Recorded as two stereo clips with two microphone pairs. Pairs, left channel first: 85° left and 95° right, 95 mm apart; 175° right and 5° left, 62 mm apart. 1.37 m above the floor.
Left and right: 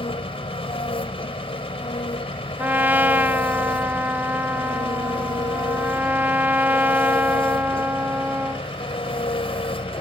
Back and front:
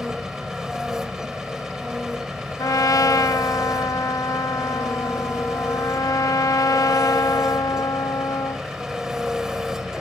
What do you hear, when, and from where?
0.0 s an engine running: 85° left
2.6 s a trumpet: 165° right